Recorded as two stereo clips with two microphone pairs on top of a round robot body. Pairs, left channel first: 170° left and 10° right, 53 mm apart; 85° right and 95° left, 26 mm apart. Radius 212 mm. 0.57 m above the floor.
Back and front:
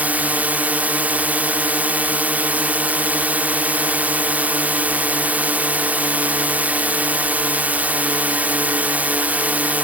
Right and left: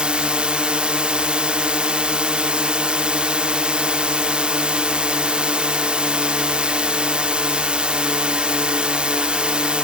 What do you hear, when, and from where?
0.0 s a drone: 45° left